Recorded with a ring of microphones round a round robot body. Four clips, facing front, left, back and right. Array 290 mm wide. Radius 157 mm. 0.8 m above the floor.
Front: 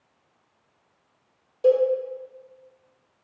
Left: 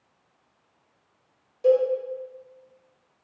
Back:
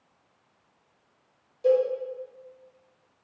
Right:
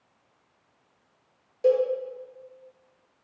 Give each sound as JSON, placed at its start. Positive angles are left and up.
{"t": 1.6, "sound": "a cowbell", "azimuth_deg": -30, "distance_m": 1.1}